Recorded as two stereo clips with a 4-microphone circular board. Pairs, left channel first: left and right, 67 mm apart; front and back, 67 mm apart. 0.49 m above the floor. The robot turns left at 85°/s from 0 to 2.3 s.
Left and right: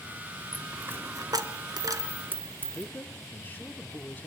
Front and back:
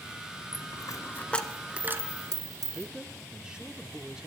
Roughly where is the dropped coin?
Ahead.